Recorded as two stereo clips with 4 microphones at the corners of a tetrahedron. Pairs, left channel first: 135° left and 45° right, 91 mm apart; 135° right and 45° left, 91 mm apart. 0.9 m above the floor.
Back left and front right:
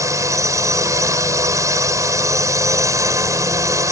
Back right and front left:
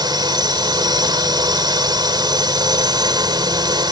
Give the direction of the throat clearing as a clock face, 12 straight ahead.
No throat clearing in this recording.